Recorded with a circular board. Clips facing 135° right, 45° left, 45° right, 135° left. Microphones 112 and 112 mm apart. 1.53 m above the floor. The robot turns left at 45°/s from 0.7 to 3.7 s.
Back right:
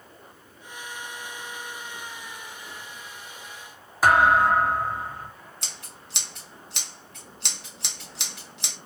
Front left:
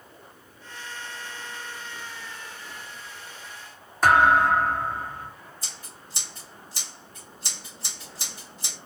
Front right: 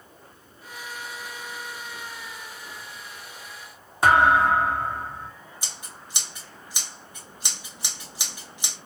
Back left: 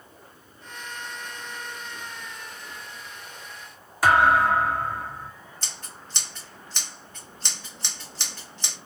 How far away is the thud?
About 1.2 m.